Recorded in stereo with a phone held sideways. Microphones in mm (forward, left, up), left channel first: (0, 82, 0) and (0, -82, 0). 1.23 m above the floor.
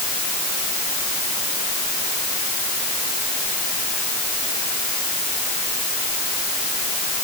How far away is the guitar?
I don't hear a guitar.